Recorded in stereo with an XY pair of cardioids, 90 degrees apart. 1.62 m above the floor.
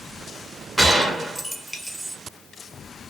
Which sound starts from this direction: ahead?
A gunshot, at 0.8 s.